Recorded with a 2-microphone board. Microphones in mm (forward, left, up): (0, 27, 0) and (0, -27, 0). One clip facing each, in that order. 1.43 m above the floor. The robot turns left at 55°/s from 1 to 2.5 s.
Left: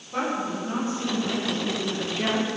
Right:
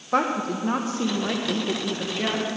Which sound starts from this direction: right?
A woman speaking, at 0.1 s.